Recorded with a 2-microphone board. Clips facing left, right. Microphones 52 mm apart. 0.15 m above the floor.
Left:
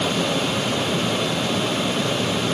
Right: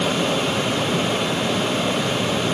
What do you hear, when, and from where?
Only background noise.